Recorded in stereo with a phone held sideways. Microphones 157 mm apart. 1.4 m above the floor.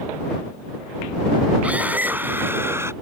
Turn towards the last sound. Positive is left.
turn(degrees=-15)  # may be behind; listen again after turning